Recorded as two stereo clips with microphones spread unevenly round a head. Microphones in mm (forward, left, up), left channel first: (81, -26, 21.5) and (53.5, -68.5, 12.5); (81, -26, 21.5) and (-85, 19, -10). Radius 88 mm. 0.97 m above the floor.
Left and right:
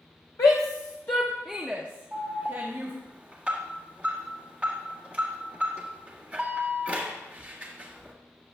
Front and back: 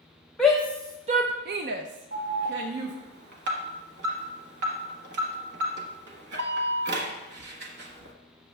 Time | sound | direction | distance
0.4 | a shout | 75° left | 0.7 m
2.1 | an alarm | 160° left | 1.4 m